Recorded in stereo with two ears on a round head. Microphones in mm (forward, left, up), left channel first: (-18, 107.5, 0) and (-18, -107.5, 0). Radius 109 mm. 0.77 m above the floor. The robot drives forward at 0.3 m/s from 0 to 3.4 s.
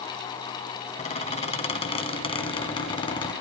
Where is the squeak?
30° left (ahead or behind), 1.5 m; by 3.3 s 20° left (ahead or behind), 2 m.